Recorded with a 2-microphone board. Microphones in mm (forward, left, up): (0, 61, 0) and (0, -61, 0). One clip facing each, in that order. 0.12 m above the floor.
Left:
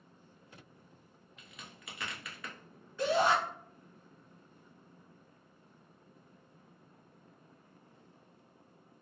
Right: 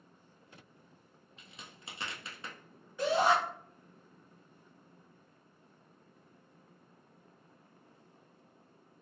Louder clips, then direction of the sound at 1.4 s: Even; 30° right (ahead or behind).